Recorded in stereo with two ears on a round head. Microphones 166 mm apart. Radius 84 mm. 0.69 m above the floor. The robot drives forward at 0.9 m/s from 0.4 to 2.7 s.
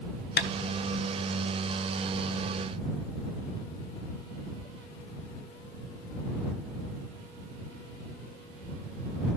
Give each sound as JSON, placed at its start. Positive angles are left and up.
{"t": 0.4, "sound": "tapping", "side_deg": 50, "distance_m": 1.6}